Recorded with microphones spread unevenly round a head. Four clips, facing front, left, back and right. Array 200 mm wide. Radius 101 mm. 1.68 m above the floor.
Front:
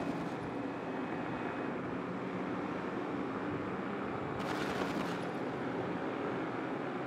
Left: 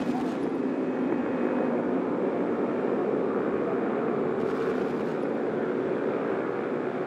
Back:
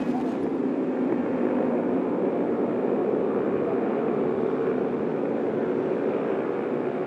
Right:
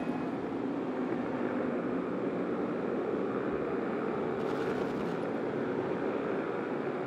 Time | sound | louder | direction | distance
0.0 | a motorcycle | left 6 dB, back 12 dB | 155° left | ?